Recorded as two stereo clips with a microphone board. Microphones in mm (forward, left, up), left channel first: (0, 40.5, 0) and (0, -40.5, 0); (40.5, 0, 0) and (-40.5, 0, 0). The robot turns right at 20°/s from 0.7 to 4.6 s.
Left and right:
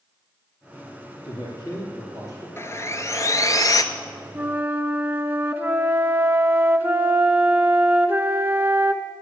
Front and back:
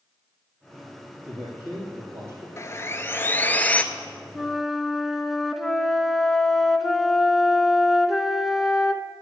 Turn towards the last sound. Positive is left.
turn(degrees=-95)